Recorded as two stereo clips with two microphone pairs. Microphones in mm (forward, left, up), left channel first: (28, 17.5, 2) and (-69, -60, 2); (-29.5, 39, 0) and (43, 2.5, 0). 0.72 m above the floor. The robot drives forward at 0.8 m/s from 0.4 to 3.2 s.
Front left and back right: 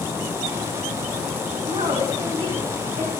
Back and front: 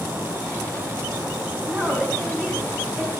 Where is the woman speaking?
100° right, 4.5 m; by 3.1 s 115° right, 5 m.